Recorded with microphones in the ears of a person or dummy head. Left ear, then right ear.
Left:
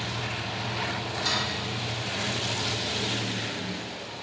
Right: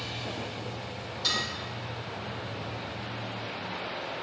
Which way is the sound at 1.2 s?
50° right (ahead or behind).